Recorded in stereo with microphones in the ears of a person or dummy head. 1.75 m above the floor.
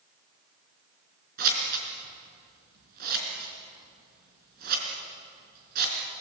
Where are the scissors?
50° right (ahead or behind), 4.5 m.